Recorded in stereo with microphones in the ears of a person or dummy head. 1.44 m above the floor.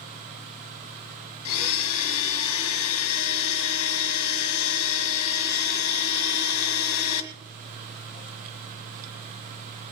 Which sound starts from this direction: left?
A blender, at 1.4 s.